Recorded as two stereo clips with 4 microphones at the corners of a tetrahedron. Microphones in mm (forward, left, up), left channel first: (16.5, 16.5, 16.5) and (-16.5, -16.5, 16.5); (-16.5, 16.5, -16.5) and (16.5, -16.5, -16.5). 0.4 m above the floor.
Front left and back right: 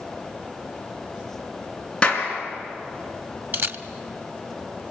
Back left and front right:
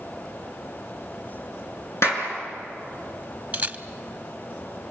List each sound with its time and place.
2.0 s a clap: 115° left, 4.5 m
3.5 s a camera shutter: 100° right, 0.8 m